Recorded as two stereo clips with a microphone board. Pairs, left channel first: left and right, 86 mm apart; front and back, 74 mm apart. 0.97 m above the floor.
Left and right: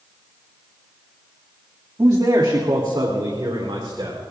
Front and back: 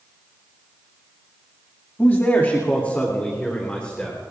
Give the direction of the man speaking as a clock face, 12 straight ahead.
2 o'clock.